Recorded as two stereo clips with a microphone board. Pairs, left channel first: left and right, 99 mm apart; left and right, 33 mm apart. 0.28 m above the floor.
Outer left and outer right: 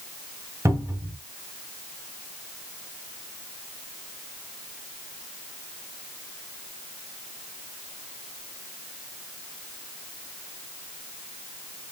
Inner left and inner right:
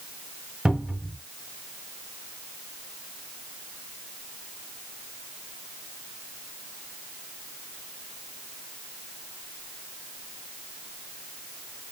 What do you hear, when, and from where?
0.7 s a cupboard door: 30° right (ahead or behind), 1.9 m